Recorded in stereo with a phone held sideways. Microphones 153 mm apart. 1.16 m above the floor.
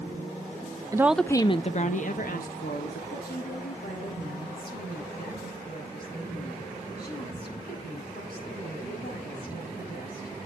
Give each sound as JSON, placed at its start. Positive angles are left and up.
{"t": 0.9, "sound": "a woman speaking", "side_deg": -20, "distance_m": 0.6}
{"t": 3.1, "sound": "a woman speaking", "side_deg": 90, "distance_m": 7.5}